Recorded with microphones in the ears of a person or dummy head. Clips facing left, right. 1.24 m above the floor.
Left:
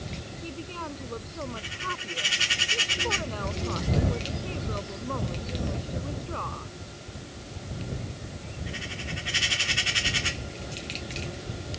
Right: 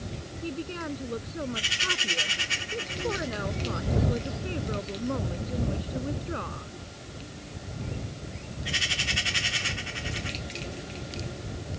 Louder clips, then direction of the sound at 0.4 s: Right 5 dB; 15° right (ahead or behind).